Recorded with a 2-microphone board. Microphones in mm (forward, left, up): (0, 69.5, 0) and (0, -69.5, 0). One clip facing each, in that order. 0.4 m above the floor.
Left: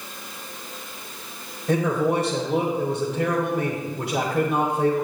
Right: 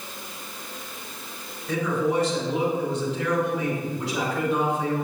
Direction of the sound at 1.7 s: 55° left (ahead or behind).